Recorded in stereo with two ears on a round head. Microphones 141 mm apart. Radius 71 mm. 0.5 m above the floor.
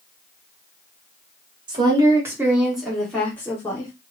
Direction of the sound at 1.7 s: 30° right (ahead or behind).